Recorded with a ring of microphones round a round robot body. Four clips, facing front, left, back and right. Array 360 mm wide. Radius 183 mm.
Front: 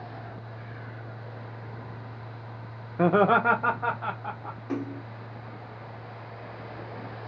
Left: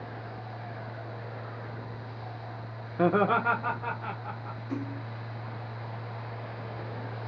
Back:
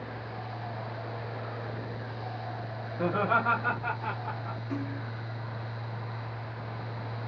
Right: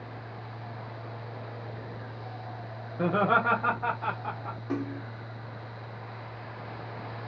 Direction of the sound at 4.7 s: 55° right.